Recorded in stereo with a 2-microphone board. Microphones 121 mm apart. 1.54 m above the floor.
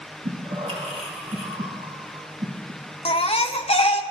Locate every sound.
0.2 s breathing: 65° right (ahead or behind), 1.5 m
3.0 s a baby crying: 55° left (ahead or behind), 0.7 m